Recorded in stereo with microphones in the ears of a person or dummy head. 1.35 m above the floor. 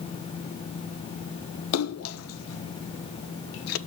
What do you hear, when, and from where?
1.7 s a splash: 75° left (ahead or behind), 0.7 m